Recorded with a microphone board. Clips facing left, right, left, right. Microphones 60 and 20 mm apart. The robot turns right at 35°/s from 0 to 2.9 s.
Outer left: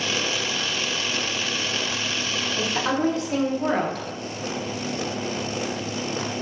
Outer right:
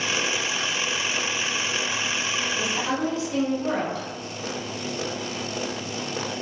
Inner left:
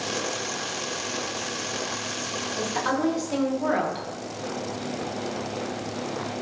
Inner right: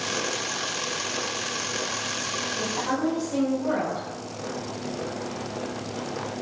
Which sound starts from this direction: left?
A woman speaking, at 2.6 s.